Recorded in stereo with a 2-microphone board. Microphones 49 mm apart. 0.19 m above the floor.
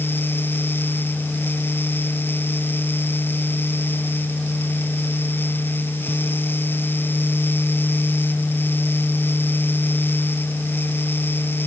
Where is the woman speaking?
No woman speaking in this recording.